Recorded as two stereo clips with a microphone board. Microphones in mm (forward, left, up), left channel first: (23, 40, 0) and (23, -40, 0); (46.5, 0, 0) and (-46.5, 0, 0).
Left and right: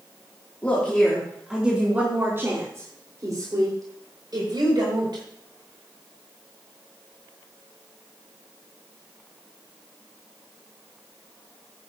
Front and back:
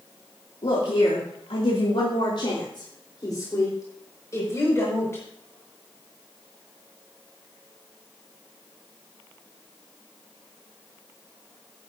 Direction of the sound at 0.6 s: 20° left.